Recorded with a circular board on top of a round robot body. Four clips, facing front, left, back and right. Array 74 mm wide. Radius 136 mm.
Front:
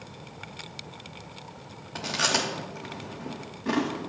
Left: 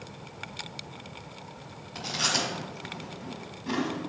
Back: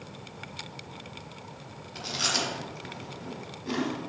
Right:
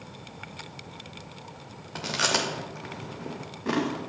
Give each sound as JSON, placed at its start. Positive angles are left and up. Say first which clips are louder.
{"t": 1.9, "sound": "chewing", "louder": "right 3 dB, front 4 dB", "azimuth_deg": -60, "distance_m": 0.8}